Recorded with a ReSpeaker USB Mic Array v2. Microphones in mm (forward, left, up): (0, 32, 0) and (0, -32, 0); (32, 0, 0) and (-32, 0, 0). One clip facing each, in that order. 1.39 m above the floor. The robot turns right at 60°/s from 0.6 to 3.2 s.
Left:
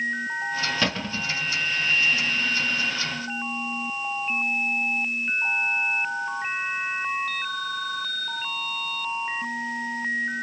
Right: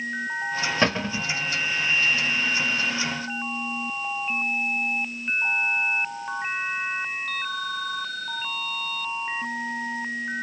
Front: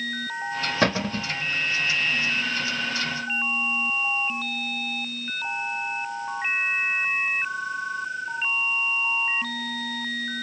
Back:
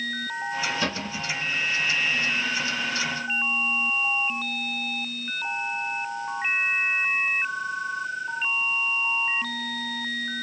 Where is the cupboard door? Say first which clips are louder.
Right 3 dB, front 5 dB; 30° right, 0.6 m; by 1.3 s straight ahead, 0.6 m.